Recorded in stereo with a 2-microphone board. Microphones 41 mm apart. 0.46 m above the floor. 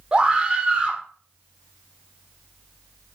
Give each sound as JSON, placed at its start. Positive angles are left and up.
{"t": 0.1, "sound": "a scream", "side_deg": -25, "distance_m": 0.9}